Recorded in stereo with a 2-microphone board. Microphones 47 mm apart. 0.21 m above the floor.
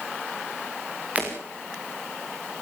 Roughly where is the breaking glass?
Right.